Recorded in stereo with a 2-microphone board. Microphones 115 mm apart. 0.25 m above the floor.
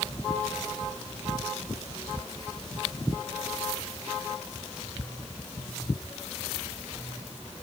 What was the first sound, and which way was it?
Only background noise.